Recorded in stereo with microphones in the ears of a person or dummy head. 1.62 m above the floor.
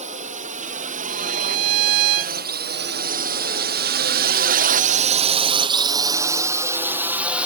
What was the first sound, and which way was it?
A drone, 35° right (ahead or behind).